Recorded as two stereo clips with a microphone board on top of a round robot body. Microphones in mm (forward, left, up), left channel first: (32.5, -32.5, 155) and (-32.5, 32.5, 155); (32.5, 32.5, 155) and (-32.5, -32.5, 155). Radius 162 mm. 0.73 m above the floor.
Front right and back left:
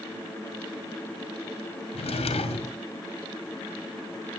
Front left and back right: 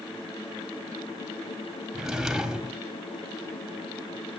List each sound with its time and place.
1.9 s a drawer: 50° right, 1.4 m